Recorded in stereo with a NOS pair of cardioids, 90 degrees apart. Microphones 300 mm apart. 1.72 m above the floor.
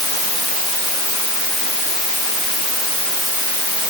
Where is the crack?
I don't hear a crack.